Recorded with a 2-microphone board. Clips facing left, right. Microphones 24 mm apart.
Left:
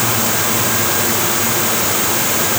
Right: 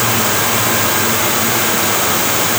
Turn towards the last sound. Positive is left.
No sound to turn to.